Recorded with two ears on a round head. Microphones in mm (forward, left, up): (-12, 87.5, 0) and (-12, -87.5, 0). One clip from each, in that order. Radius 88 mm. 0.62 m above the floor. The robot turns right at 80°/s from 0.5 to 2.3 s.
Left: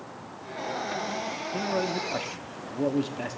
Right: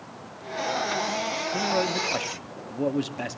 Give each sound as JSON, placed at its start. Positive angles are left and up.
{"t": 1.5, "sound": "a man speaking", "side_deg": -25, "distance_m": 0.6}